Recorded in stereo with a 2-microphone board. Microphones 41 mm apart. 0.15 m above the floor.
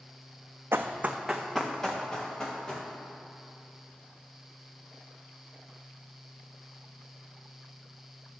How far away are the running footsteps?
About 0.7 m.